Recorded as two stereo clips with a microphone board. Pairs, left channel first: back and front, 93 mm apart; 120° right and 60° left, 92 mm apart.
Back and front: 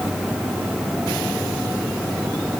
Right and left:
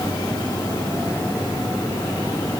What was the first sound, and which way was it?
Only background noise.